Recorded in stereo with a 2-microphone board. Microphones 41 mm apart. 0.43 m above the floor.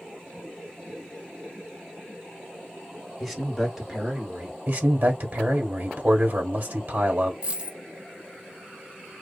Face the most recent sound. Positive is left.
turn(degrees=-30)  # may be behind; listen again after turning